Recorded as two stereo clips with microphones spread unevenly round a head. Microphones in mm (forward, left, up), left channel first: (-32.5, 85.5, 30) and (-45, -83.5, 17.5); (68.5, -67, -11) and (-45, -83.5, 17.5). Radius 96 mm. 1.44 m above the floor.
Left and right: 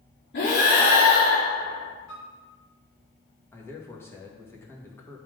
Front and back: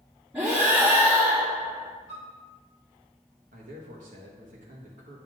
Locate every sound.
0.3 s breathing: 105° left, 3 m
2.1 s a piano: 80° left, 3.5 m
3.5 s a man speaking: 160° left, 1.7 m